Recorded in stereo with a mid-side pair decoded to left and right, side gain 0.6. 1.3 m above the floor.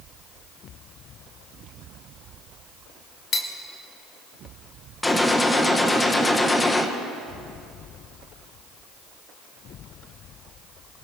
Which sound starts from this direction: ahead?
A gunshot, at 5.0 s.